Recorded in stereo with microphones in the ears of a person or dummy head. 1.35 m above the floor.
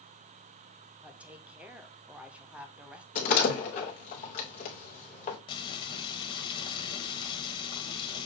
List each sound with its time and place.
1.0 s a woman speaking: 5° right (ahead or behind), 0.5 m
3.1 s a door slam: 40° left (ahead or behind), 0.8 m
5.5 s frying: 25° left (ahead or behind), 1.1 m